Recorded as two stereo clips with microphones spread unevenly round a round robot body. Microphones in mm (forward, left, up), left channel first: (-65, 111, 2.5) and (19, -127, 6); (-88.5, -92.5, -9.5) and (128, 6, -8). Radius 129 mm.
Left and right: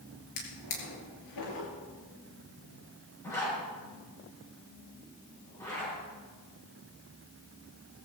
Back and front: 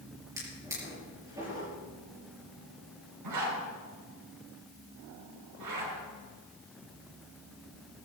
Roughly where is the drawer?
Left.